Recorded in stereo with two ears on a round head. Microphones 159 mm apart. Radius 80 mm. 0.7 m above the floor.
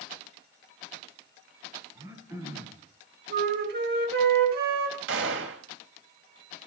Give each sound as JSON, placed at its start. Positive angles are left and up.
{"t": 1.9, "sound": "throat clearing", "side_deg": -15, "distance_m": 3.5}
{"t": 3.3, "sound": "a flute", "side_deg": -55, "distance_m": 4.5}
{"t": 5.1, "sound": "a gunshot", "side_deg": -75, "distance_m": 3.0}